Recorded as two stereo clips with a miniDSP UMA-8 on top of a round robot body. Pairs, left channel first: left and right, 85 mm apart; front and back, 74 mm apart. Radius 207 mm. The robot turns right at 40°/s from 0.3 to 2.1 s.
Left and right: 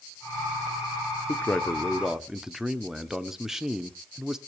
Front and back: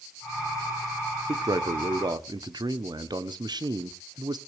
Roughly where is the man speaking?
Behind left.